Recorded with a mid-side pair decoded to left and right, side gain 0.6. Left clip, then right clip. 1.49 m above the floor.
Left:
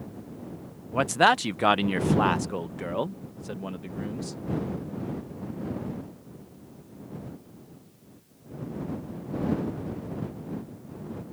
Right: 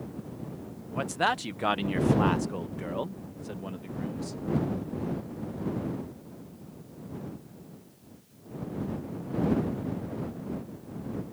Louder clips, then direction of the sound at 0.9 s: Left 7 dB; 45° left.